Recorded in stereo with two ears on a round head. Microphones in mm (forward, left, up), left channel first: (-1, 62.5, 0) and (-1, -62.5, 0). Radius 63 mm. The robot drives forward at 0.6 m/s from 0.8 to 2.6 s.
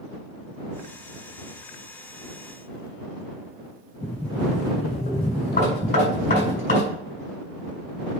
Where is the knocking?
70° left (ahead or behind), 5 m.